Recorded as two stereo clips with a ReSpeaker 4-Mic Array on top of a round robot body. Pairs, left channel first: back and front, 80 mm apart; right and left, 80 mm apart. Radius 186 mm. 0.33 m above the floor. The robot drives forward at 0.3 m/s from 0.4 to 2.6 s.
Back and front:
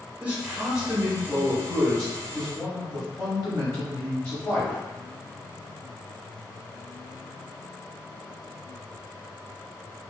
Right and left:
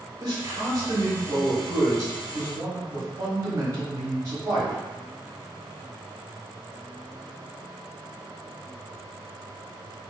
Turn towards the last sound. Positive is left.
turn(degrees=130)